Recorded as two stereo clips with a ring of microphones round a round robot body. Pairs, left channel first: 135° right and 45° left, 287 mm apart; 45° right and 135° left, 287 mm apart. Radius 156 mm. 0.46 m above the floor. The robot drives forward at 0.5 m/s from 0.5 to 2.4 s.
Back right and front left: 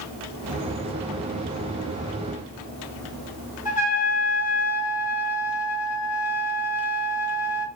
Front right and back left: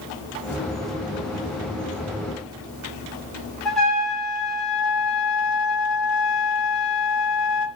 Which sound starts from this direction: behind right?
A trumpet, at 3.6 s.